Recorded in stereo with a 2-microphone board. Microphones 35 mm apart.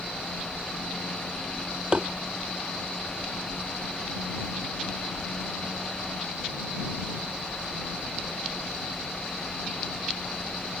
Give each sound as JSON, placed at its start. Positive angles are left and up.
{"t": 1.9, "sound": "tapping", "side_deg": -25}